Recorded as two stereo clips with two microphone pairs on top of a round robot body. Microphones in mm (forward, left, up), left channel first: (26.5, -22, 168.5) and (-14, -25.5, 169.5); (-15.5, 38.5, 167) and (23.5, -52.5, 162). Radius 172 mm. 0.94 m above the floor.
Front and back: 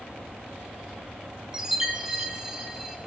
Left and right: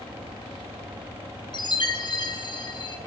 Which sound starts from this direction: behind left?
A chime, at 1.5 s.